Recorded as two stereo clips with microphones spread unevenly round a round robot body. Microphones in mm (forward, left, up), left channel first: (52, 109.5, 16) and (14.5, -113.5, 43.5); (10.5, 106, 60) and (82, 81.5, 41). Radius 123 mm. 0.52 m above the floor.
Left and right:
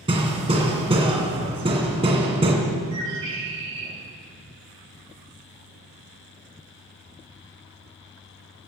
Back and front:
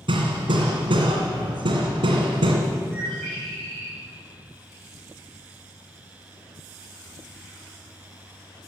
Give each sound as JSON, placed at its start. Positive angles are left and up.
{"t": 0.1, "sound": "hammering", "azimuth_deg": -35, "distance_m": 2.5}
{"t": 2.9, "sound": "a bird", "azimuth_deg": -120, "distance_m": 5.0}